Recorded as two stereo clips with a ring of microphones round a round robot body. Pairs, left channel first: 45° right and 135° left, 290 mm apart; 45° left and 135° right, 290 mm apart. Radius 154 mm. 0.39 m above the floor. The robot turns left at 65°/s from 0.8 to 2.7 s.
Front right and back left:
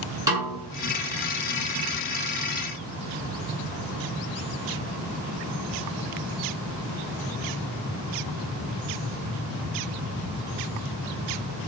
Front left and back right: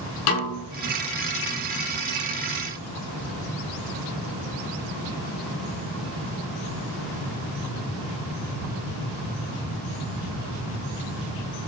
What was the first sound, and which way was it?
A snare drum, 55° left.